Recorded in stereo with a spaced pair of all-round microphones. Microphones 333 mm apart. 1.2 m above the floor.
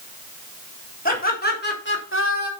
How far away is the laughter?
About 4 m.